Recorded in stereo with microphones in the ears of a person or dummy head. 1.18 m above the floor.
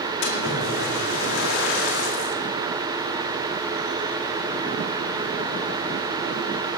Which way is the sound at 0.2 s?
75° left (ahead or behind).